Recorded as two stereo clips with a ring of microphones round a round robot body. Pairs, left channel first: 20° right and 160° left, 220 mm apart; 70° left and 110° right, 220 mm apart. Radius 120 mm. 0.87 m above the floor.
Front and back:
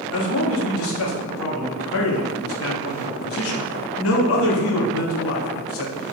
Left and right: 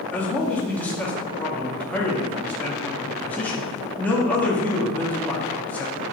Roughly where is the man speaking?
Ahead.